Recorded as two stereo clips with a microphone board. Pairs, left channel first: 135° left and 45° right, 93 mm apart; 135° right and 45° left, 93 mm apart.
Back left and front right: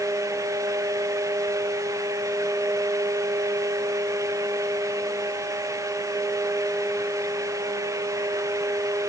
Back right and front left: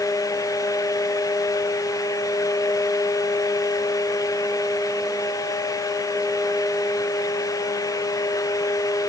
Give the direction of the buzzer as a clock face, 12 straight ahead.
I don't hear a buzzer.